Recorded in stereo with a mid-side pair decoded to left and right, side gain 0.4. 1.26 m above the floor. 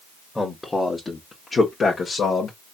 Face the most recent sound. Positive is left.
turn(degrees=65)